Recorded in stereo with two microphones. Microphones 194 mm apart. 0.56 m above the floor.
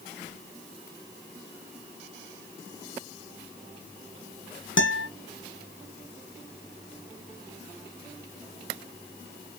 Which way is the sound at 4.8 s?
75° left (ahead or behind).